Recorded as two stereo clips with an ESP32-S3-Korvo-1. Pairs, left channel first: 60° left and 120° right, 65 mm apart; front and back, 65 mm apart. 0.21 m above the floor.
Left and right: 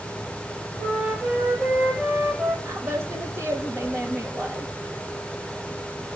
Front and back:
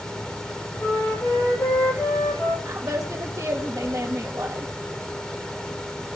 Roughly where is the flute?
Ahead right.